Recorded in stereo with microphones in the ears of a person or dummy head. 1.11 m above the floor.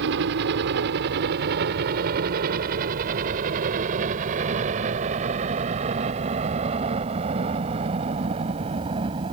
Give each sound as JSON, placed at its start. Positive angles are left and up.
{"t": 0.0, "sound": "a helicopter", "side_deg": -60}